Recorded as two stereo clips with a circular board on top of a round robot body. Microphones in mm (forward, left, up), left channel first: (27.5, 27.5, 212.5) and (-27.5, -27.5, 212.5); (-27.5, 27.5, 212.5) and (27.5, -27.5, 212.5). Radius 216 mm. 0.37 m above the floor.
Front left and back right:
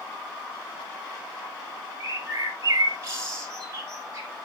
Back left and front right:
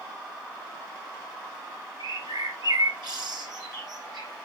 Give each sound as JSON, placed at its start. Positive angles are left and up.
{"t": 2.0, "sound": "a bird", "azimuth_deg": -80, "distance_m": 2.0}